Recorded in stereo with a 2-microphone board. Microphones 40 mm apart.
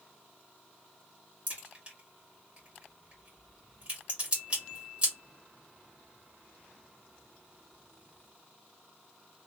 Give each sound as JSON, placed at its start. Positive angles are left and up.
{"t": 1.5, "sound": "a crack", "side_deg": -25, "distance_m": 1.6}